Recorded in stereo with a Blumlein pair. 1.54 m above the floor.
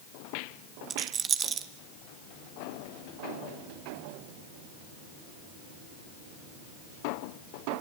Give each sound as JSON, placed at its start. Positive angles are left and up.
{"t": 0.9, "sound": "a rattle", "azimuth_deg": -20, "distance_m": 1.3}